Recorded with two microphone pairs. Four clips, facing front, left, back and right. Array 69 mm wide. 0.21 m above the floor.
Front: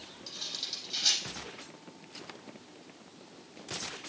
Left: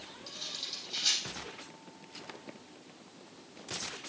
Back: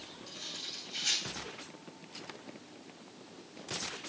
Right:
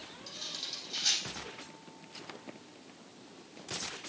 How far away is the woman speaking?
No woman speaking in this recording.